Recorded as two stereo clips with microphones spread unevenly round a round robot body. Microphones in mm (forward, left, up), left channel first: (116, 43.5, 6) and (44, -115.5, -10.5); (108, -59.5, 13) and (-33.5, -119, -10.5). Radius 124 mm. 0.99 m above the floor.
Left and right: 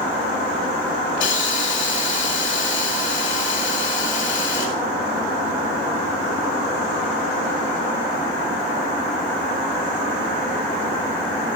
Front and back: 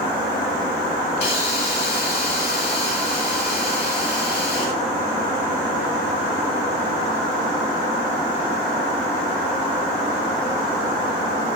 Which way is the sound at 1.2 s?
90° left.